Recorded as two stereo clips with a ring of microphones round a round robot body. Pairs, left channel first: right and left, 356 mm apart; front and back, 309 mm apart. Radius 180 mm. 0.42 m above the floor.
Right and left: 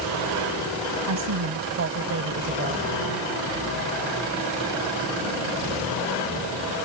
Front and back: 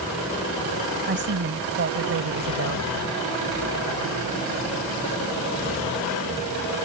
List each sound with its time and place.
1.1 s a woman speaking: 130° left; by 2.9 s 155° left